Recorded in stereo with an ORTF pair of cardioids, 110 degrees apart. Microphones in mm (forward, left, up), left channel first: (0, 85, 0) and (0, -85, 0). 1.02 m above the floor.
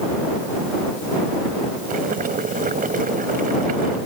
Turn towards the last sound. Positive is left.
turn(degrees=-55)